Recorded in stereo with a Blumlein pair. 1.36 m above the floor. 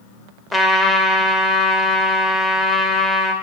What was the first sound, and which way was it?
A trumpet, 5° left.